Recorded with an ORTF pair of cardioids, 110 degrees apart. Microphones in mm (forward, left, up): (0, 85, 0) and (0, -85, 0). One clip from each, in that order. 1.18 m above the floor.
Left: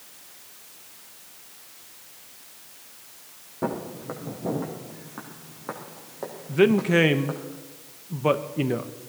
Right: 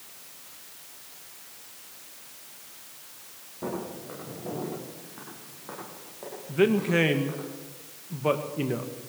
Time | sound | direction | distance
3.6 | footsteps | 55° left | 4 m
6.5 | a man speaking | 25° left | 1.1 m